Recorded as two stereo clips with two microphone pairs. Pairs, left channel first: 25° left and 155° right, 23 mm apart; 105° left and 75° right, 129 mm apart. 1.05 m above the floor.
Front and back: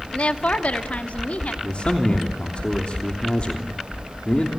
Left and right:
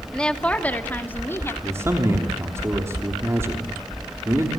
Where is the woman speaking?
20° left, 2 m; by 1.5 s 30° left, 3 m.